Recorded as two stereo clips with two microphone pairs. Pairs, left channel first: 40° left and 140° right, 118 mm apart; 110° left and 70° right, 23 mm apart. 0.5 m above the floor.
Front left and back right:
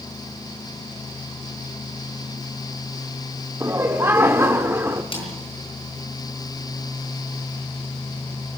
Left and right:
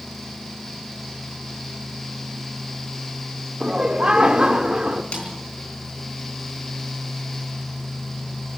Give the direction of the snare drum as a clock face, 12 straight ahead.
9 o'clock.